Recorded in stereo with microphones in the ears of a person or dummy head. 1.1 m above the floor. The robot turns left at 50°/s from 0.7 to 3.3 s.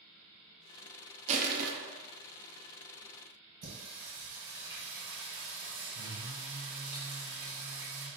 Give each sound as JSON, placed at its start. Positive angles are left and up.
{"t": 1.3, "sound": "crushing", "side_deg": -35, "distance_m": 0.5}
{"t": 3.6, "sound": "singing", "side_deg": -45, "distance_m": 1.6}